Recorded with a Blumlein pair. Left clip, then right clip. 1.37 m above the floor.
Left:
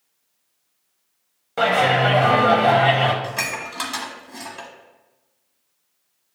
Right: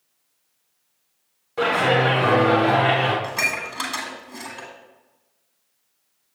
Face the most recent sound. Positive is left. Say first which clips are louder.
# right 2 dB
turn(degrees=5)